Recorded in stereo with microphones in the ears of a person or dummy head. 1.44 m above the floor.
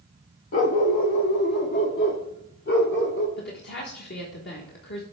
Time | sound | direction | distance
0.5 | a dog barking | 30° left (ahead or behind) | 0.9 m
3.4 | a woman speaking | 50° left (ahead or behind) | 1.4 m